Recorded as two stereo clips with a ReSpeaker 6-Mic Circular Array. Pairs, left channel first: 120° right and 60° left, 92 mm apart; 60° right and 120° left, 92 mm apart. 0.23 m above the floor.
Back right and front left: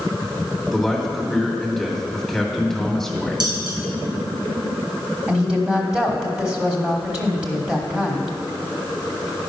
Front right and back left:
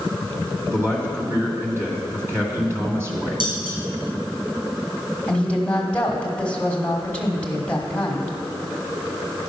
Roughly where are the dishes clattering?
Left.